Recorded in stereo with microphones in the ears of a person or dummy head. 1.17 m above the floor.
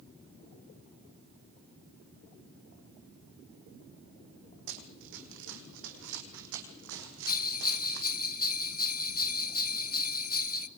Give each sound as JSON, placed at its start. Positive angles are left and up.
{"t": 4.7, "sound": "running footsteps", "side_deg": -65, "distance_m": 3.5}
{"t": 7.3, "sound": "a bell", "side_deg": 45, "distance_m": 1.0}